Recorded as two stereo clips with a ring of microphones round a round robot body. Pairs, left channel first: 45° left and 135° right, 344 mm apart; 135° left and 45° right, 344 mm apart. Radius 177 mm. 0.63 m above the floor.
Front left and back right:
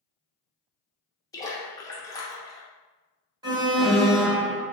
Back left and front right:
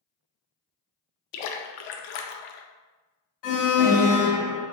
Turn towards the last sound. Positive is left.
turn(degrees=145)